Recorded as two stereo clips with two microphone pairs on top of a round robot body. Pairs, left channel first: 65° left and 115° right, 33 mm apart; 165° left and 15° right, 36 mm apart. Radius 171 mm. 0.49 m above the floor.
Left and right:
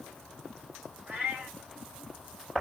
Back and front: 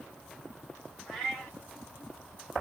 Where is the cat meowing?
90° right, 2 m.